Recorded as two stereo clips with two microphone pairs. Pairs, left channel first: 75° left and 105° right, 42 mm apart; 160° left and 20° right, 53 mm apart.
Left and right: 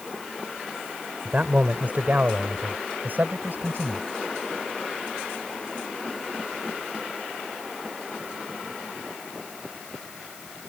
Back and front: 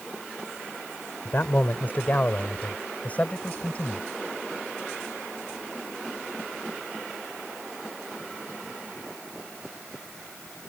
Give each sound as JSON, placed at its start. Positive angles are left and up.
{"t": 1.2, "sound": "a man speaking", "azimuth_deg": -150}